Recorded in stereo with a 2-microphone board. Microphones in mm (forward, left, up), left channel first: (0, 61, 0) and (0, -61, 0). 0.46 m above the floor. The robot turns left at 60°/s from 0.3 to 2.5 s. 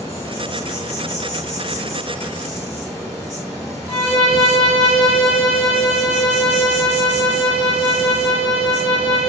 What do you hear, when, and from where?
0.0 s an insect: 150° left, 1.4 m; by 9.3 s 20° left, 1.4 m
3.9 s a violin: 5° left (ahead or behind), 1.6 m